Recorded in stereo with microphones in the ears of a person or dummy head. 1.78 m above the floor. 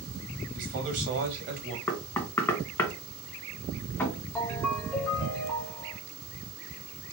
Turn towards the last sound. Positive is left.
turn(degrees=10)  # may be behind; listen again after turning